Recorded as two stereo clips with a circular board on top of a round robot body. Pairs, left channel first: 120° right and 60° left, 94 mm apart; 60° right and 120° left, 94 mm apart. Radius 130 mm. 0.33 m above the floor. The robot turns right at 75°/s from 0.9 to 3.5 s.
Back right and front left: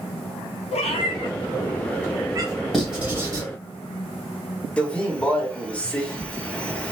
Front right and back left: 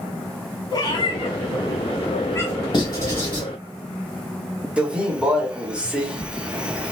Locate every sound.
0.7 s a cat meowing: 105° right, 0.5 m; by 2.5 s 15° left, 0.5 m
2.7 s writing: 35° right, 1.5 m; by 3.4 s 20° left, 1.5 m
4.8 s a man speaking: straight behind, 1.0 m